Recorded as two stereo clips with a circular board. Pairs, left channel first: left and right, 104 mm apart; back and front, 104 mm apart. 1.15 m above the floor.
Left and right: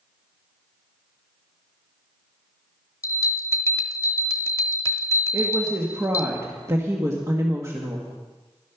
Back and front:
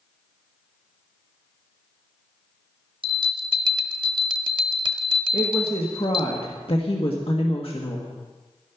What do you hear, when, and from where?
3.0 s a bell: 30° left, 1.0 m
5.3 s a woman speaking: 150° right, 1.6 m